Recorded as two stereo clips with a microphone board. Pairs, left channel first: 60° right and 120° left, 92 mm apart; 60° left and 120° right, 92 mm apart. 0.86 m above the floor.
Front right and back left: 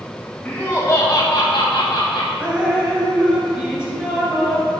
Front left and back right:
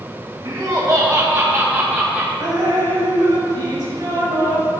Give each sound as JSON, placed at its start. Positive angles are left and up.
{"t": 0.5, "sound": "laughter", "azimuth_deg": -125, "distance_m": 1.2}
{"t": 2.4, "sound": "dripping", "azimuth_deg": -160, "distance_m": 2.5}